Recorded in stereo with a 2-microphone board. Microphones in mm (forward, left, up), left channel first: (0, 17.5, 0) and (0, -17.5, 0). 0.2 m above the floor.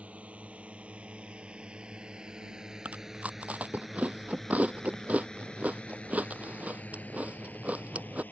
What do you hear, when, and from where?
0.0 s a drone: 40° right (ahead or behind); by 8.3 s 65° left (ahead or behind)
2.9 s chewing: 50° right (ahead or behind)